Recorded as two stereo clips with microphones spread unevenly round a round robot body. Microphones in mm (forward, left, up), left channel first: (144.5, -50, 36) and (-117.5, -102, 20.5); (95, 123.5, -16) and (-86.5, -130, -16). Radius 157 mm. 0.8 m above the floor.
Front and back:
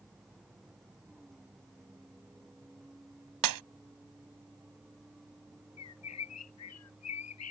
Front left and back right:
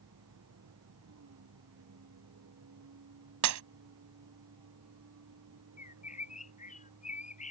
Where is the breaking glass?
165° right.